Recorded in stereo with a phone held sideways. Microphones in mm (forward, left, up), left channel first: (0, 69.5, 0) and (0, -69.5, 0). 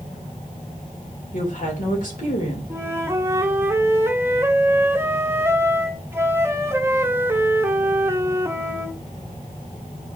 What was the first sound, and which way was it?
A woman speaking, 70° left (ahead or behind).